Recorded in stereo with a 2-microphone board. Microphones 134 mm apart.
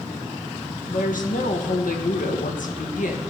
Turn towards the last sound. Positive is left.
turn(degrees=80)